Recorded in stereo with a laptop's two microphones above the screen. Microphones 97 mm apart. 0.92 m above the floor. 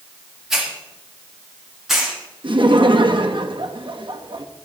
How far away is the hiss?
About 1.7 m.